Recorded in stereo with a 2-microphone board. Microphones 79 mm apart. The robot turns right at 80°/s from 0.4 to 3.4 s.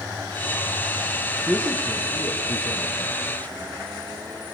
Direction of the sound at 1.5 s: 5° left (ahead or behind).